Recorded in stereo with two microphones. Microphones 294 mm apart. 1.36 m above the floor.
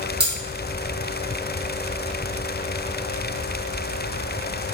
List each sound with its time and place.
0.2 s cutlery clinking: 35° right (ahead or behind), 1.2 m